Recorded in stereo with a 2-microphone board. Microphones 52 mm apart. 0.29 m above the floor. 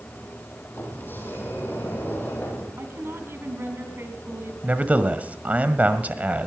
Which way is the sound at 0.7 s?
40° left (ahead or behind).